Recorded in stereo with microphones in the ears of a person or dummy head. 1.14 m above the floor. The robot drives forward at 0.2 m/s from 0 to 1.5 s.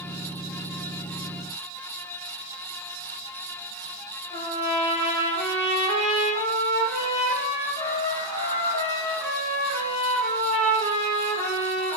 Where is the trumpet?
20° left (ahead or behind), 1.5 m.